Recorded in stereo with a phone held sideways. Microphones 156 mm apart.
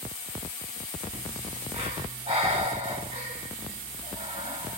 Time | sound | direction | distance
1.1 | breathing | 45° right (ahead or behind) | 1.5 m